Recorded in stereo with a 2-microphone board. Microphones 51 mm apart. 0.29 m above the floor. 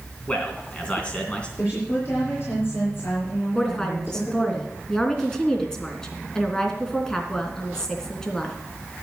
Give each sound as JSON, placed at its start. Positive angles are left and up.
{"t": 0.3, "sound": "a man speaking", "side_deg": 25, "distance_m": 3.0}
{"t": 1.6, "sound": "a woman speaking", "side_deg": 50, "distance_m": 6.0}
{"t": 3.5, "sound": "a woman speaking", "side_deg": 15, "distance_m": 2.5}